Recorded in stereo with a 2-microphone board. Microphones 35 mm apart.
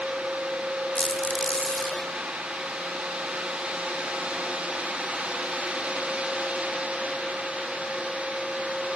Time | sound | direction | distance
0.9 | a squeak | 35° left (ahead or behind) | 1.3 m